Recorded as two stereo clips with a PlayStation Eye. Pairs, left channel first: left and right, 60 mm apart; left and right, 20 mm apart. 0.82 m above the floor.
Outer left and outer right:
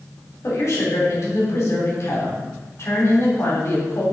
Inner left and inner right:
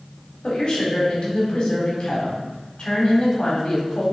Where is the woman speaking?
50° left (ahead or behind), 3 m.